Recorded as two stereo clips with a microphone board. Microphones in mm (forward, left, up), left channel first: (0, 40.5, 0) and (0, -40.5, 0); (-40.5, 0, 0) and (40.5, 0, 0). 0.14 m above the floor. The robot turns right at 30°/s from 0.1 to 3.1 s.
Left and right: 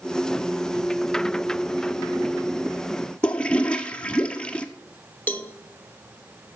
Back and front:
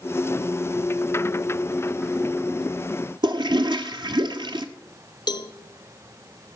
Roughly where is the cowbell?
Behind left.